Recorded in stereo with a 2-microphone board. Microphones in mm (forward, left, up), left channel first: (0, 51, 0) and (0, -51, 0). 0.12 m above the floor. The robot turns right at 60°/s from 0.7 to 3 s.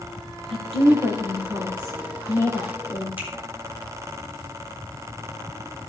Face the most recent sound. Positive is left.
turn(degrees=-15)  # may be behind; listen again after turning